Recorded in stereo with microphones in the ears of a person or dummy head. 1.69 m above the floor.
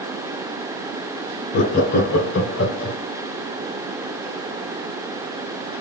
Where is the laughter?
50° left (ahead or behind), 0.6 m; by 3.0 s 75° left (ahead or behind), 1.2 m.